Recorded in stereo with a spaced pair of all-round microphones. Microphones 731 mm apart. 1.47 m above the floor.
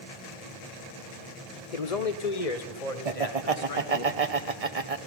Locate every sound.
1.7 s a man speaking: 60° left (ahead or behind), 0.7 m; by 4.0 s 45° left (ahead or behind), 2.5 m
3.0 s laughter: 50° right (ahead or behind), 1.0 m